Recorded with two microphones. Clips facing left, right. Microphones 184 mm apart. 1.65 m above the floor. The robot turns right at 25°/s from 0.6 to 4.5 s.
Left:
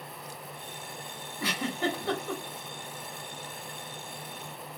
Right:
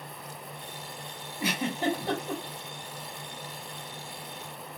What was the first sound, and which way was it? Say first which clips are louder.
A giggle: right 2 dB; 15° right (ahead or behind).